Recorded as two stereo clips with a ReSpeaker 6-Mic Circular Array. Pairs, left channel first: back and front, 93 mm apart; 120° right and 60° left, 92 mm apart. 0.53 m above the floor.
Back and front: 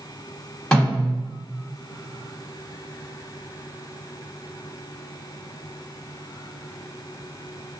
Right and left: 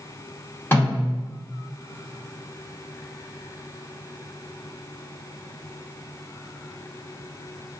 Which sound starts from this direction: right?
A snare drum, at 0.7 s.